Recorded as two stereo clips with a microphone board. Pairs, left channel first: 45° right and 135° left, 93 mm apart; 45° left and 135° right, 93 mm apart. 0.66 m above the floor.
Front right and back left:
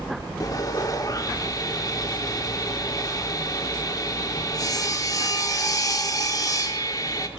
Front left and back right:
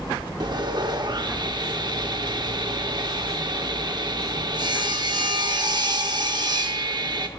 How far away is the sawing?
About 0.6 m.